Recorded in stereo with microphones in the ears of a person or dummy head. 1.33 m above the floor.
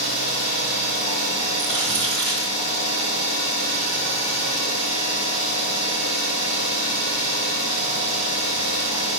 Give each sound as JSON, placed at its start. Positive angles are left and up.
{"t": 0.0, "sound": "an engine running", "side_deg": 75, "distance_m": 2.5}
{"t": 1.6, "sound": "crumpling", "side_deg": 10, "distance_m": 2.0}